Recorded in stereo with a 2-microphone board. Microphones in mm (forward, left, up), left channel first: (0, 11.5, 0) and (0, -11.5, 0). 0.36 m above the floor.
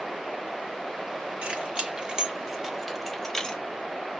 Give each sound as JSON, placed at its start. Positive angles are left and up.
{"t": 1.4, "sound": "keys jangling", "side_deg": -55, "distance_m": 1.5}